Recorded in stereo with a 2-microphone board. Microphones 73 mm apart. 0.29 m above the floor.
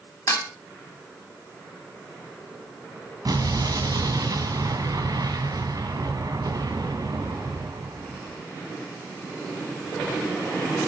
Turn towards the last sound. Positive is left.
turn(degrees=-60)  # may be behind; listen again after turning